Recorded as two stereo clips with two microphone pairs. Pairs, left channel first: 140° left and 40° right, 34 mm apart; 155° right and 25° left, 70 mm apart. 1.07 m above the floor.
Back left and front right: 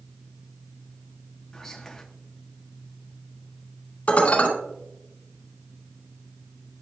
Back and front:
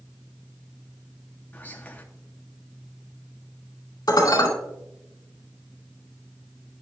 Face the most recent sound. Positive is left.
turn(degrees=180)